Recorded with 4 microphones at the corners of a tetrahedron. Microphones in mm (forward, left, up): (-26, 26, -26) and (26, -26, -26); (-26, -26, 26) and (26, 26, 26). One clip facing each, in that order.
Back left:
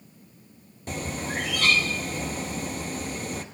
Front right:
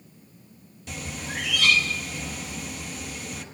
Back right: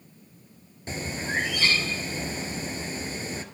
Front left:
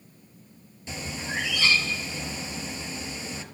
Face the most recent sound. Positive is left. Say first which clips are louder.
# back left 4 dB, back right 3 dB
turn(degrees=180)